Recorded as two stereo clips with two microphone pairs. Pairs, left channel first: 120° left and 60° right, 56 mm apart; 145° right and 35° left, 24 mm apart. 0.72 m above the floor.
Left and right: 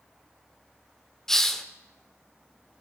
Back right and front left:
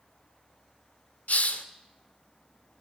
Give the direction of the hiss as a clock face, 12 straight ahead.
5 o'clock.